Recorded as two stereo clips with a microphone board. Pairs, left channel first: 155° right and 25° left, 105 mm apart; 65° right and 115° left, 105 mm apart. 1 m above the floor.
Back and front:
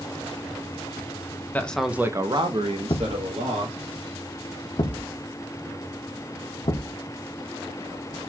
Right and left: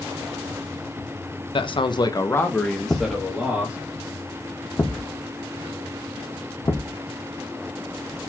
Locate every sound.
1.5 s a man speaking: 85° right, 0.8 m; by 3.8 s 35° left, 1.8 m
2.9 s a thud: 135° right, 0.7 m